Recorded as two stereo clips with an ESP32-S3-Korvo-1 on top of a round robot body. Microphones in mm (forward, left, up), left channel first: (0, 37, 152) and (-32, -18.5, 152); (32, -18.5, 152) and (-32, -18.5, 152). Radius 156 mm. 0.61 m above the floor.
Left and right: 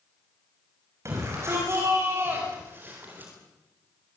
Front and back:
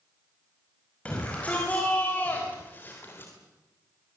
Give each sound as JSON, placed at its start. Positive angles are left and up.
{"t": 1.1, "sound": "a shout", "azimuth_deg": -70, "distance_m": 5.5}